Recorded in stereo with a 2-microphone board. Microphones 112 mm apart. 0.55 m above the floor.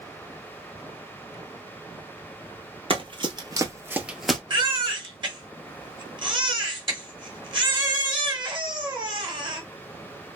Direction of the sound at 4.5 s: 45° right (ahead or behind).